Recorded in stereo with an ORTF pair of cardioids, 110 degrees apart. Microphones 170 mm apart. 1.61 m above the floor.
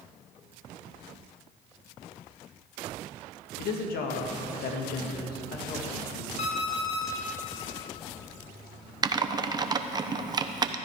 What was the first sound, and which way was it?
A woman speaking, 70° left.